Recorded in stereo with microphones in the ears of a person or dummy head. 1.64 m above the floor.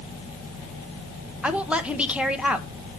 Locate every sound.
1.4 s a woman speaking: 10° right (ahead or behind), 0.8 m